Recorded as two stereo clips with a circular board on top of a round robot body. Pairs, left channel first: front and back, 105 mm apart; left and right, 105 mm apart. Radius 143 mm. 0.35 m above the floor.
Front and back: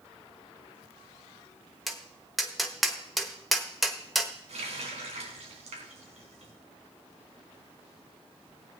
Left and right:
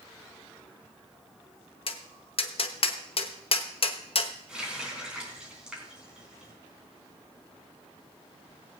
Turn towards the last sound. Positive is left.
turn(degrees=-170)